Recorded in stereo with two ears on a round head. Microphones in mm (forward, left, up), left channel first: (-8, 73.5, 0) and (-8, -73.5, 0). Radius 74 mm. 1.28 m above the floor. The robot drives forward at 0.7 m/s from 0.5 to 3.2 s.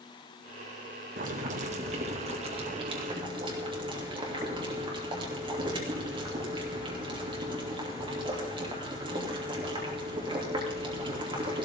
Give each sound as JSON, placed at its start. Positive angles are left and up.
{"t": 1.2, "sound": "boiling", "side_deg": -55, "distance_m": 1.8}